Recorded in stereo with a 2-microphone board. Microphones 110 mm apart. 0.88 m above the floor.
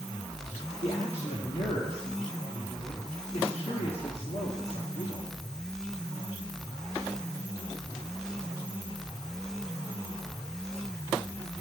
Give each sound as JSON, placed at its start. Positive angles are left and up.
{"t": 0.8, "sound": "a man speaking", "side_deg": 70, "distance_m": 1.2}